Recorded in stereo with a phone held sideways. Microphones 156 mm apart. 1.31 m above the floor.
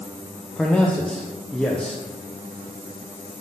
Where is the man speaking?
5° left (ahead or behind), 0.6 m.